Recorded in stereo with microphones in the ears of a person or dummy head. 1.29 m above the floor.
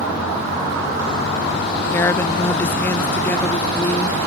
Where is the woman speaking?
15° left (ahead or behind).